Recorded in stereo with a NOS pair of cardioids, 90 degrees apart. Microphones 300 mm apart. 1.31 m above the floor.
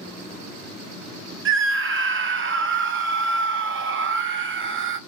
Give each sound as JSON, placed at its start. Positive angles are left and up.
{"t": 1.4, "sound": "a scream", "azimuth_deg": -40, "distance_m": 1.2}